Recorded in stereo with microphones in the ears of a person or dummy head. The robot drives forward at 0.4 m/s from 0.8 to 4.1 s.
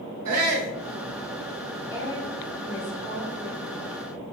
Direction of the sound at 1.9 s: 40° left (ahead or behind).